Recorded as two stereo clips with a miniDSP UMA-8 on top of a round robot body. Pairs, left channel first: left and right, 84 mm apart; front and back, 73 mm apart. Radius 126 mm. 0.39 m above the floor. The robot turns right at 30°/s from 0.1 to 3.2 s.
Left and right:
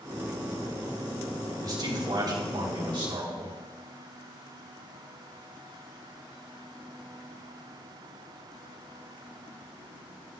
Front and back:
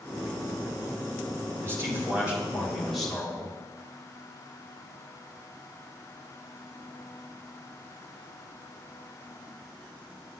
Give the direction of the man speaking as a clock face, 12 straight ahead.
4 o'clock.